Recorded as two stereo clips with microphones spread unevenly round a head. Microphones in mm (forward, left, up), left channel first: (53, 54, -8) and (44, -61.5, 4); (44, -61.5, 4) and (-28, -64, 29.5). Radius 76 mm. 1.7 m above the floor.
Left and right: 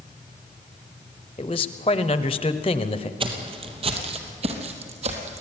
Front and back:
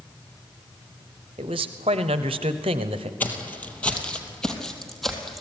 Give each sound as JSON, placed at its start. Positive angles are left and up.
{"t": 1.4, "sound": "a man speaking", "azimuth_deg": 145, "distance_m": 0.9}
{"t": 3.2, "sound": "footsteps", "azimuth_deg": -75, "distance_m": 3.0}